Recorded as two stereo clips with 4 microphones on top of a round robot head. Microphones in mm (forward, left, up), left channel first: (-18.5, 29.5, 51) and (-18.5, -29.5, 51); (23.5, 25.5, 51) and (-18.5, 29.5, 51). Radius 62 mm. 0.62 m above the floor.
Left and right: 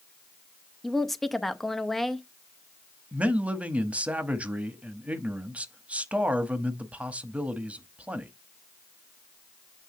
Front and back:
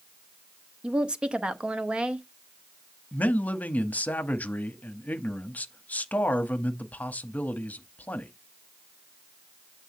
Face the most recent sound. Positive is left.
turn(degrees=-35)